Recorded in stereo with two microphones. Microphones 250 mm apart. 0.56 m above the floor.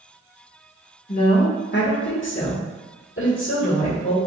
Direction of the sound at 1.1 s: 30° left (ahead or behind).